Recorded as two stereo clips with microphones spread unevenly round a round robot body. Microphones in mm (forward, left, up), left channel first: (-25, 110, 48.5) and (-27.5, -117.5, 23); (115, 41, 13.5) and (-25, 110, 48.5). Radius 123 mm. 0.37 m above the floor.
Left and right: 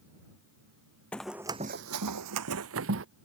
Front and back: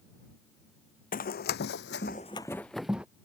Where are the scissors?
I don't hear scissors.